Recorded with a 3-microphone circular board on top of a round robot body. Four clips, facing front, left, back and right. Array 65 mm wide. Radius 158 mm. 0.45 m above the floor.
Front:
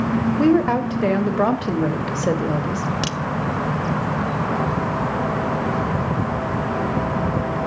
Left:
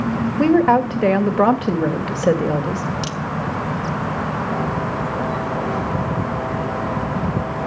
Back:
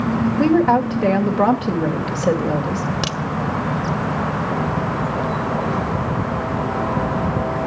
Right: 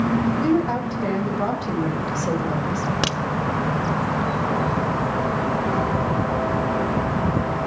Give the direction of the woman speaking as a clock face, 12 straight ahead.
9 o'clock.